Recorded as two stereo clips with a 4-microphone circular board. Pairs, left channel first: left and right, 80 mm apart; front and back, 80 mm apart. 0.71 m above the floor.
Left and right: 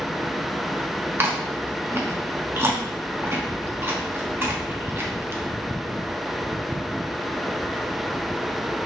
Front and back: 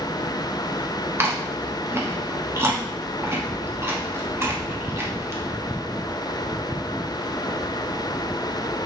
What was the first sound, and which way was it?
Chewing, 135° right.